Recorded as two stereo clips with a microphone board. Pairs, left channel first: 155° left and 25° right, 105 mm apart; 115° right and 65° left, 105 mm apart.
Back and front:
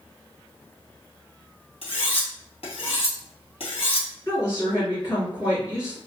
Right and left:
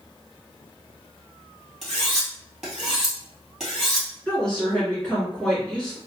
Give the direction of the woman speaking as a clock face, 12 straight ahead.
6 o'clock.